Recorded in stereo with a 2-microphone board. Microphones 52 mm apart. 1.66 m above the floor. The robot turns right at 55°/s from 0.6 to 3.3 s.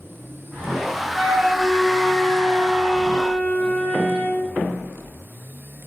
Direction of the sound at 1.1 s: 5° right (ahead or behind).